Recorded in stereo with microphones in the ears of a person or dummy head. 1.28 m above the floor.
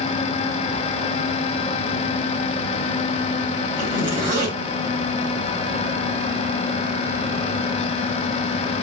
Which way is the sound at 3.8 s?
30° right (ahead or behind).